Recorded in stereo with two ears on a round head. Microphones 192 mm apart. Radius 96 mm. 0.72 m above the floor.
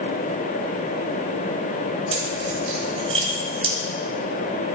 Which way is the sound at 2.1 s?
30° right (ahead or behind).